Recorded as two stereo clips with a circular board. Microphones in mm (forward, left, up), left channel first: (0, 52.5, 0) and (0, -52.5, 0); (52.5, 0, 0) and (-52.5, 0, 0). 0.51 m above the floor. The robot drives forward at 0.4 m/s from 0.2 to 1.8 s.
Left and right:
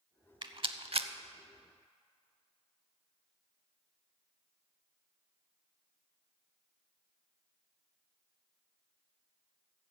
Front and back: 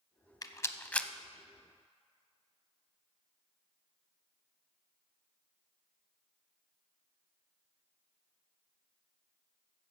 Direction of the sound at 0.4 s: 55° right.